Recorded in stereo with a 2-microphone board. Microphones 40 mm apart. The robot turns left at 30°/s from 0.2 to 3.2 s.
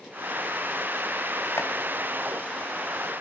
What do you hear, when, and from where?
1.6 s chopping: 85° left, 3 m